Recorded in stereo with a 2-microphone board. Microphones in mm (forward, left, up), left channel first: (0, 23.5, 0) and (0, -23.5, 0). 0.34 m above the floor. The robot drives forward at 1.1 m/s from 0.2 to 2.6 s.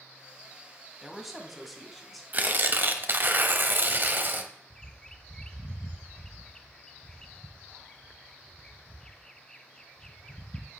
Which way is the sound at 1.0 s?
5° right (ahead or behind).